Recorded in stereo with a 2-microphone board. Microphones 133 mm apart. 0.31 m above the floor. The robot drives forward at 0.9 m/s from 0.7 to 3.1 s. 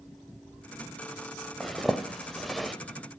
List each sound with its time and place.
1.6 s a zipper: centre (ahead or behind), 0.8 m